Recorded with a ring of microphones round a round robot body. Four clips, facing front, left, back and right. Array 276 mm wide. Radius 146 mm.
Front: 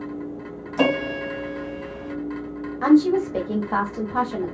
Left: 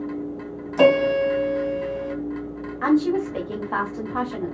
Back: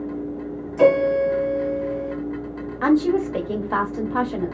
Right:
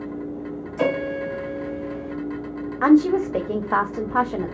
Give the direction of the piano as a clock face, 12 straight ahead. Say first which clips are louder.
Left 7 dB, back 6 dB; 10 o'clock.